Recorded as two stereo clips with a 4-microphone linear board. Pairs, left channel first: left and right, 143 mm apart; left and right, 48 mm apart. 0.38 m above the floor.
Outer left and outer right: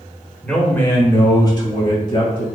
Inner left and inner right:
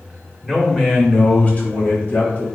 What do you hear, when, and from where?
0.4 s a man speaking: 5° left (ahead or behind), 1.2 m; by 2.5 s 40° left (ahead or behind), 1.9 m